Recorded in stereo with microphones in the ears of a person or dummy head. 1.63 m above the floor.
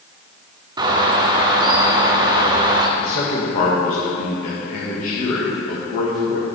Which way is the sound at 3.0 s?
45° left (ahead or behind).